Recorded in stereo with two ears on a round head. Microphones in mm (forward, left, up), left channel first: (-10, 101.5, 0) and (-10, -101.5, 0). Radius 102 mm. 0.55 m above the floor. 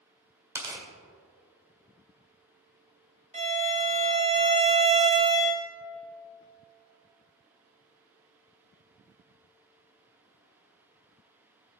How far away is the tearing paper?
About 2.0 m.